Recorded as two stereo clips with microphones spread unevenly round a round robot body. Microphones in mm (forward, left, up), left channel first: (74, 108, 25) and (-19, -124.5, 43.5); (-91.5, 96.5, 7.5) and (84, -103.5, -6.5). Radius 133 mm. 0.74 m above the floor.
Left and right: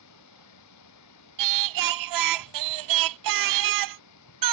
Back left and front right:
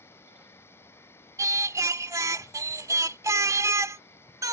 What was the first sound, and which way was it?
An insect, 50° left.